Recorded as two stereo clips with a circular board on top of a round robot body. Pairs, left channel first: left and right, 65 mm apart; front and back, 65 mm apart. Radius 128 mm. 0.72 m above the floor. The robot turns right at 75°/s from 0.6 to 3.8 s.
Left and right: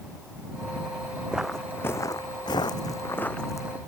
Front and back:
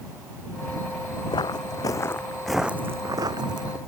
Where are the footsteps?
15° right; by 3.8 s 160° right.